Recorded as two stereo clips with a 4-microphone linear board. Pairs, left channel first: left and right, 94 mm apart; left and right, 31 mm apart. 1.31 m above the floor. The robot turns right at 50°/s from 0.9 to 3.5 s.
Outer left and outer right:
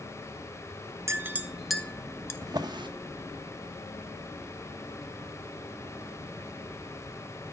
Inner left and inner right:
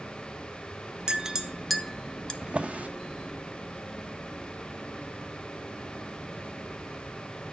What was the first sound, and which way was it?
A clink, 30° right (ahead or behind).